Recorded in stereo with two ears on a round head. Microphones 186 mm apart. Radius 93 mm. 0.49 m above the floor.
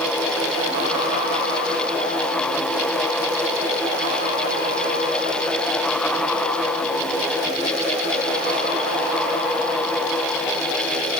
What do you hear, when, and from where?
Only background noise.